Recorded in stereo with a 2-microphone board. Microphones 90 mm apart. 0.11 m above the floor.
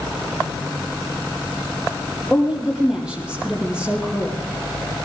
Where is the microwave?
No microwave in this recording.